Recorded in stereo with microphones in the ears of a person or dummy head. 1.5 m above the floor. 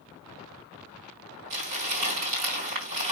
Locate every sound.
1.5 s crumpling: 45° right (ahead or behind), 1.9 m